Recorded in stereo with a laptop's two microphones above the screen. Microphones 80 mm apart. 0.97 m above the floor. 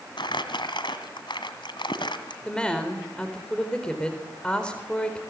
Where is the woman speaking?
10° left (ahead or behind), 4 m.